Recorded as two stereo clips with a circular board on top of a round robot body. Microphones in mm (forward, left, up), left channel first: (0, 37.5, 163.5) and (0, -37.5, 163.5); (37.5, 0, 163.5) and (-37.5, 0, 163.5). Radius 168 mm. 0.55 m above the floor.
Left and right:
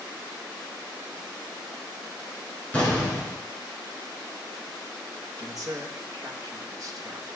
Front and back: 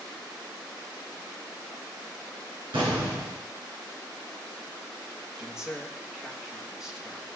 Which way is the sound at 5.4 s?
100° right.